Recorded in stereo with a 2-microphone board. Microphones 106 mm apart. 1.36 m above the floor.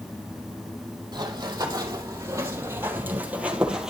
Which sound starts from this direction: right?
Running footsteps, at 1.1 s.